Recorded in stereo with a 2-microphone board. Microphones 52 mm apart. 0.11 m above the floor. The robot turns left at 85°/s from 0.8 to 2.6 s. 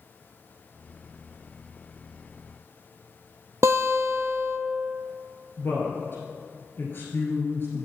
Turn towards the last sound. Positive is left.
turn(degrees=45)  # may be behind; listen again after turning